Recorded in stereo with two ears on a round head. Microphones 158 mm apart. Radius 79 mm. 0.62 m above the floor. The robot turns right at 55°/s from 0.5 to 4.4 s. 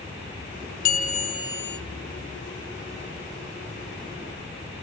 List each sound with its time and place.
0.8 s a bell: 125° left, 0.6 m; by 1.8 s 175° left, 0.6 m